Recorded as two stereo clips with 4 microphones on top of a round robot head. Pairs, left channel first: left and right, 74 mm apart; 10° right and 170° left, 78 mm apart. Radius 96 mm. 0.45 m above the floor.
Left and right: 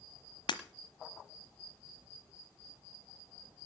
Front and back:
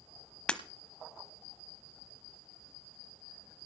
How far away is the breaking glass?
About 1.1 m.